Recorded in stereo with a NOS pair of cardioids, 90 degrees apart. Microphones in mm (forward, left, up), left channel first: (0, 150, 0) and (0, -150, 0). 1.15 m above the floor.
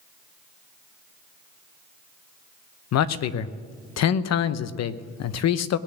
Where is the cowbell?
I don't hear a cowbell.